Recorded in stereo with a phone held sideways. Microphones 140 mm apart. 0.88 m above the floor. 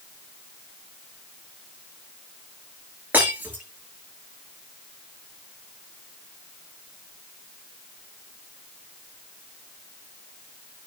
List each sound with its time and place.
3.1 s breaking glass: 15° right (ahead or behind), 7 m